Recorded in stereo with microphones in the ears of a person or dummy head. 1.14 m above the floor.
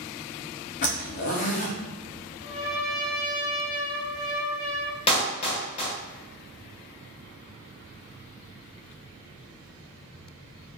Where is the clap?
30° left (ahead or behind), 1.1 m.